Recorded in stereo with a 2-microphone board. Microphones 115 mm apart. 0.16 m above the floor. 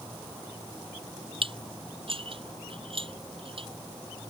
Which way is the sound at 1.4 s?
55° right (ahead or behind).